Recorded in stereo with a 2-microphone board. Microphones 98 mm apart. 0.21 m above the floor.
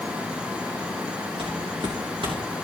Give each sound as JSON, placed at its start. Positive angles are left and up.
{"t": 1.4, "sound": "footsteps", "side_deg": -65, "distance_m": 3.0}